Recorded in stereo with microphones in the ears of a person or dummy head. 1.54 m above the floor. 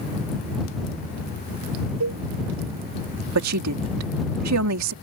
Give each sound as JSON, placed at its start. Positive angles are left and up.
{"t": 2.0, "sound": "a cowbell", "side_deg": -80}
{"t": 3.4, "sound": "a woman speaking", "side_deg": -85}